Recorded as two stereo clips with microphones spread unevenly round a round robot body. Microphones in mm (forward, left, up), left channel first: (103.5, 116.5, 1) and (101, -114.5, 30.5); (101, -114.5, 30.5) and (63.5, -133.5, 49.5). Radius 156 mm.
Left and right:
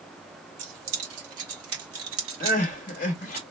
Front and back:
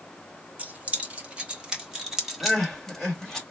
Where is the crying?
90° left, 1.4 m.